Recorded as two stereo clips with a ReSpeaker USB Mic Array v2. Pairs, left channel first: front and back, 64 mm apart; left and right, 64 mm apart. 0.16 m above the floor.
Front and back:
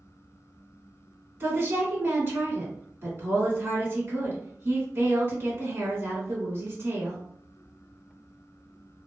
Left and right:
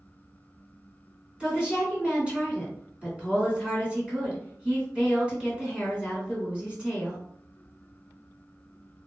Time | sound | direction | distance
1.4 | a woman speaking | 155° right | 1.4 m